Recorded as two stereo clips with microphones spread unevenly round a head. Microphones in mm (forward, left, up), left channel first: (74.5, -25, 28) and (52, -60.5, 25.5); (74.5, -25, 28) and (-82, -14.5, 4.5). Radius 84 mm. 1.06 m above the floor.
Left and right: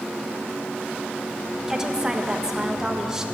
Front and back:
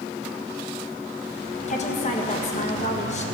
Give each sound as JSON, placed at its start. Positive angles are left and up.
{"t": 1.7, "sound": "a woman speaking", "azimuth_deg": -50, "distance_m": 1.3}